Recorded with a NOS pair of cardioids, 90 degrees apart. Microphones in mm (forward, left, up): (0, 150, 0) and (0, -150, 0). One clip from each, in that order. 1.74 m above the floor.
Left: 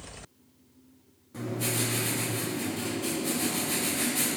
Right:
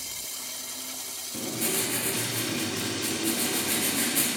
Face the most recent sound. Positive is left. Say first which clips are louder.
# right 1 dB
turn(degrees=-35)